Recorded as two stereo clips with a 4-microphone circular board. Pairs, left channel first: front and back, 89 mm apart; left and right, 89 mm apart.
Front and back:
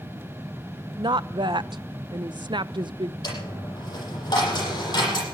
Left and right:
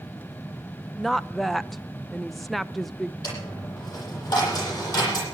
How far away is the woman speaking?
About 0.5 m.